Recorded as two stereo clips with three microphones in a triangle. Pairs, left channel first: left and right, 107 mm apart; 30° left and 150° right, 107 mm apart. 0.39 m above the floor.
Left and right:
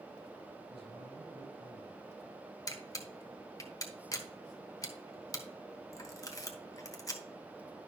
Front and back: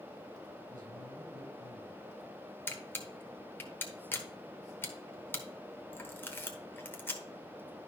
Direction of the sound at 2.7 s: 80° left.